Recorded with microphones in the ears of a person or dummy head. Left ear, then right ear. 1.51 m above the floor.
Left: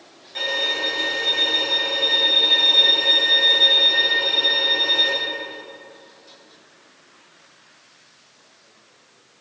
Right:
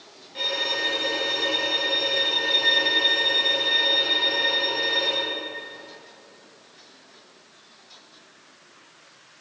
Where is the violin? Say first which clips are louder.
Left 3 dB; 40° left (ahead or behind), 2.0 m.